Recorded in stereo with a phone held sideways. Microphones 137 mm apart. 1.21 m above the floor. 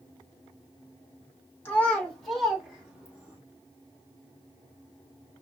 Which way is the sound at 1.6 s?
15° left (ahead or behind).